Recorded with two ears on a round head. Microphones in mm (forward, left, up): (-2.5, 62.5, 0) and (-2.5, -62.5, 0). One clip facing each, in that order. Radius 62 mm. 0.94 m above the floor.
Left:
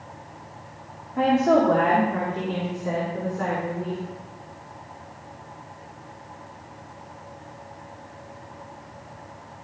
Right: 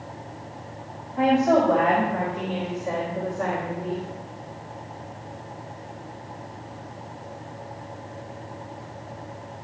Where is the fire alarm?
I don't hear a fire alarm.